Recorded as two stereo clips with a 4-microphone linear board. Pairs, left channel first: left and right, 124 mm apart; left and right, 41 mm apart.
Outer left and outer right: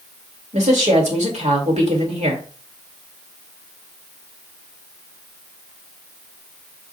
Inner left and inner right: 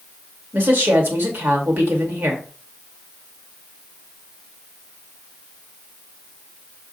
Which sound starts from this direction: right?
A woman speaking, at 0.5 s.